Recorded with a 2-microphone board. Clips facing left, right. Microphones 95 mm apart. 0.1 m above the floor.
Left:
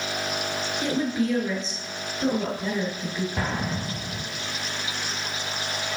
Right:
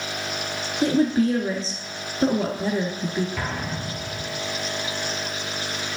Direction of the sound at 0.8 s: 35° right (ahead or behind).